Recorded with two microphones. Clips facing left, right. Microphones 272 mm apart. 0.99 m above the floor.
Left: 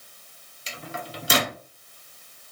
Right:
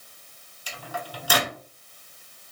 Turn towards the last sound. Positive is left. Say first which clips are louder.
# even
turn(degrees=25)  # may be behind; listen again after turning